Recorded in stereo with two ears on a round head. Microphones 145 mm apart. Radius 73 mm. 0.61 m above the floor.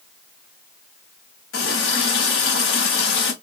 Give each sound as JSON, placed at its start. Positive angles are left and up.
{"t": 1.5, "sound": "a running tap", "side_deg": 80, "distance_m": 1.8}